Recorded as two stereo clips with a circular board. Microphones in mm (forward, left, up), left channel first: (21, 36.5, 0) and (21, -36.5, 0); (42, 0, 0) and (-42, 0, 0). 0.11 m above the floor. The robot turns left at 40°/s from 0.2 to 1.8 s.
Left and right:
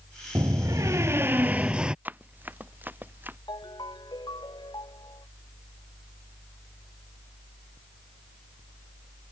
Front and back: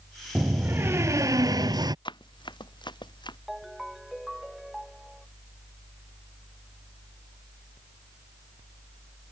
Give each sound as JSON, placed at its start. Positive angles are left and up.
{"t": 0.3, "sound": "a door slam", "azimuth_deg": -105}
{"t": 2.0, "sound": "running footsteps", "azimuth_deg": -25}
{"t": 3.5, "sound": "a ringtone", "azimuth_deg": 95}